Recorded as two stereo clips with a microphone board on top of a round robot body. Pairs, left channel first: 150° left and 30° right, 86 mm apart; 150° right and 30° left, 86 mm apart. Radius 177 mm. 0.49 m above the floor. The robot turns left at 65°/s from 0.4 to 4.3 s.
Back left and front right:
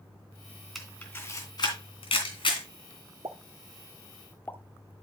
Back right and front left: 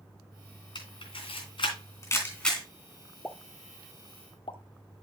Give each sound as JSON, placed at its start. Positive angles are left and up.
{"t": 0.8, "sound": "a camera shutter", "azimuth_deg": -120, "distance_m": 2.5}
{"t": 3.2, "sound": "a pop", "azimuth_deg": -70, "distance_m": 0.9}